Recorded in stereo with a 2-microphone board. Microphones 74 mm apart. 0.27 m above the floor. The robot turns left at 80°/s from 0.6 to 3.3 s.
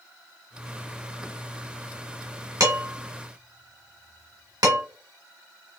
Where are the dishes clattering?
45° right (ahead or behind), 1.9 m; by 4.8 s 60° right (ahead or behind), 1.9 m.